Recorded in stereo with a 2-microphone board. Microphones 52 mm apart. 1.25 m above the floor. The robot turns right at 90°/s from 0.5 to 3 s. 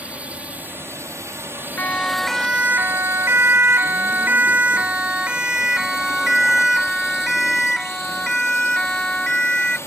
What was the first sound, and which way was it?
A drone, 150° right.